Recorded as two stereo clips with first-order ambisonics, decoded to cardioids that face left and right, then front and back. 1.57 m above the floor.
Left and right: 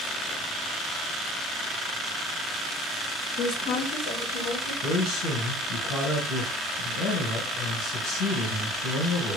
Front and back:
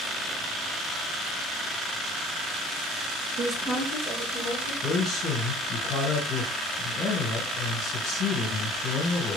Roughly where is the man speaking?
Ahead left.